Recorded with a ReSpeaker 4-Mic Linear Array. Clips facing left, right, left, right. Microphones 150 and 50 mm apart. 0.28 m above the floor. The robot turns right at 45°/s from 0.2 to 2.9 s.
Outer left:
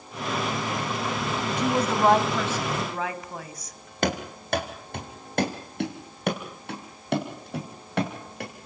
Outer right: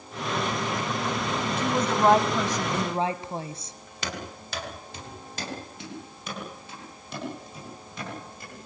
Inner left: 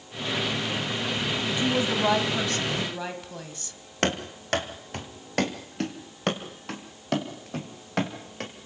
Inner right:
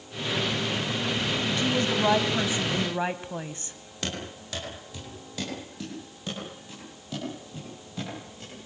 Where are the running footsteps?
55° left (ahead or behind), 4 m; by 8.7 s 70° left (ahead or behind), 7 m.